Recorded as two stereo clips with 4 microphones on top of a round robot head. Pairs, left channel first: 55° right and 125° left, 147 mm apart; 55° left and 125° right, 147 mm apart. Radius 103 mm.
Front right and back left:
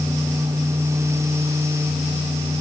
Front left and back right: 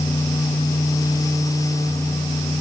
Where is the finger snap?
No finger snap in this recording.